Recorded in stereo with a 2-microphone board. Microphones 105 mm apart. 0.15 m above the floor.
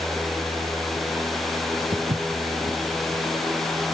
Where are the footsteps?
75° right (ahead or behind), 0.8 m; by 3.9 s 60° right (ahead or behind), 1.9 m.